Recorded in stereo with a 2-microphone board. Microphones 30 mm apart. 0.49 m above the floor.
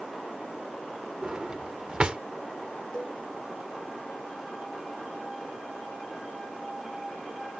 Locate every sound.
1.2 s a drawer: 35° right (ahead or behind)
2.9 s a cowbell: 35° left (ahead or behind)